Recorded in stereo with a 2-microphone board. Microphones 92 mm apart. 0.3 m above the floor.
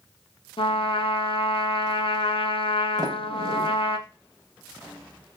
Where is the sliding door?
45° right (ahead or behind), 0.7 m.